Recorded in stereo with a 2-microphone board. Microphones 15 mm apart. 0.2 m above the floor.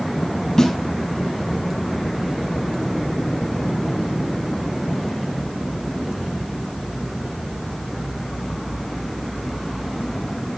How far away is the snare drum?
About 6 m.